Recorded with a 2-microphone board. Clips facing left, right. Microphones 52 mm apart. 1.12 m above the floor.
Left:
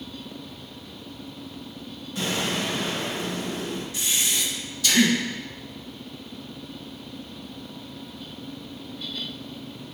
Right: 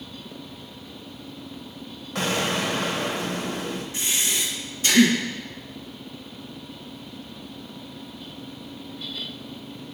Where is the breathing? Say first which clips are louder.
Even; 30° right (ahead or behind), 1.4 m.